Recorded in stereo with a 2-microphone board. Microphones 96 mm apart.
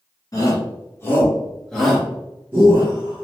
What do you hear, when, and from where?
0.3 s a shout: 35° left (ahead or behind), 1.3 m; by 3.2 s 40° right (ahead or behind), 1.0 m